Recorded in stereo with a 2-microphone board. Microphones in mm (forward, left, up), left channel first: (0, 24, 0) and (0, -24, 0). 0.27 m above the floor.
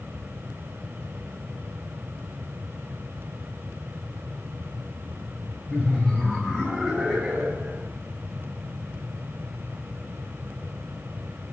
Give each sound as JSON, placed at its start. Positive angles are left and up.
{"t": 5.7, "sound": "laughter", "side_deg": 20, "distance_m": 1.3}